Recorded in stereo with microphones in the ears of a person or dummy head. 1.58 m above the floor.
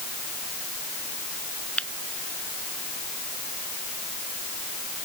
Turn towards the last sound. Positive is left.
turn(degrees=5)  # may be behind; listen again after turning